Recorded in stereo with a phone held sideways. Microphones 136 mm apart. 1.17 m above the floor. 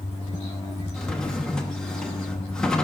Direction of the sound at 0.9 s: 5° left (ahead or behind).